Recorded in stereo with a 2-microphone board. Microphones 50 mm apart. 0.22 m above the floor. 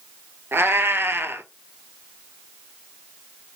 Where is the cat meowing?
50° right (ahead or behind), 0.5 m.